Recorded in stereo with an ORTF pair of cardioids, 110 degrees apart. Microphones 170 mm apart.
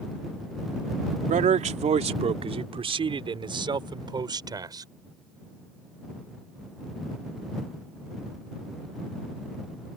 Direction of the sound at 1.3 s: 50° right.